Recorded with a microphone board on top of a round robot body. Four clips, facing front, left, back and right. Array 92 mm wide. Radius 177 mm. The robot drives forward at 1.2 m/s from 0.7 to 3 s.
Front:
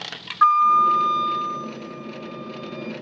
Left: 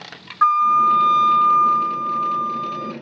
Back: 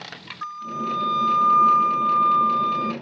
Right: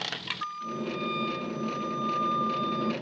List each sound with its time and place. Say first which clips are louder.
0.4 s a flute: left 22 dB, front 15 dB; 45° left; by 2.9 s 165° left